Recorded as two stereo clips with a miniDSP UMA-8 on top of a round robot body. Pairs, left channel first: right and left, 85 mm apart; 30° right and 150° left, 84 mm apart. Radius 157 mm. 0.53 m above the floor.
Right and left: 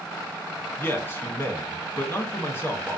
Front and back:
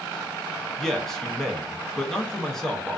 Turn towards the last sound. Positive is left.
turn(degrees=-110)